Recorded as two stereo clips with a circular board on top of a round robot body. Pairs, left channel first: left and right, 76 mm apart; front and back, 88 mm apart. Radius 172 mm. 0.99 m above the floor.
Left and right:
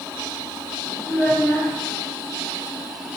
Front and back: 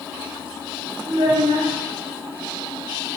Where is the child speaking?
160° left, 1.0 m.